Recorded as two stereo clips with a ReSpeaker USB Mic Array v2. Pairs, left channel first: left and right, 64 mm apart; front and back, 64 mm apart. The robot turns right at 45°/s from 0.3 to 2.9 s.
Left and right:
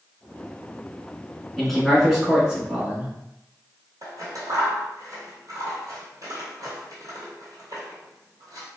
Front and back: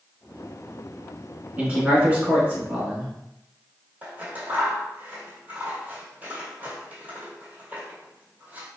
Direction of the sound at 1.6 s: 170° left.